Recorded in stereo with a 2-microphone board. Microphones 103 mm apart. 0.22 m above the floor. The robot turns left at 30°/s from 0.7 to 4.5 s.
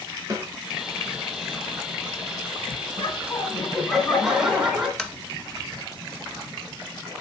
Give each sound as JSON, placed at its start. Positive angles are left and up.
{"t": 0.3, "sound": "a snare drum", "side_deg": -35, "distance_m": 2.0}
{"t": 3.0, "sound": "laughter", "azimuth_deg": 40, "distance_m": 2.5}
{"t": 5.0, "sound": "tapping", "side_deg": 5, "distance_m": 0.8}